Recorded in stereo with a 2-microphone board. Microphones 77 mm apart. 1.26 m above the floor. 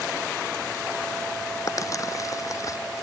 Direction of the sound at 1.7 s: 45° left (ahead or behind).